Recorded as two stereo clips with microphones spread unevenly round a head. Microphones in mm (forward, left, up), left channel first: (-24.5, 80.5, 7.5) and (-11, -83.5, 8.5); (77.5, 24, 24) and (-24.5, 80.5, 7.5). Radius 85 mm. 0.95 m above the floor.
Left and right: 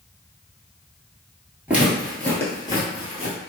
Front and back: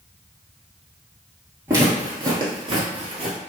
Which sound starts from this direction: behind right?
Footsteps, at 1.7 s.